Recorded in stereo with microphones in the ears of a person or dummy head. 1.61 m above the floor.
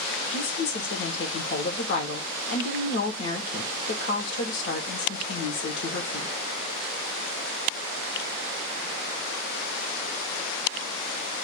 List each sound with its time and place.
0.3 s a woman speaking: 60° left (ahead or behind), 0.9 m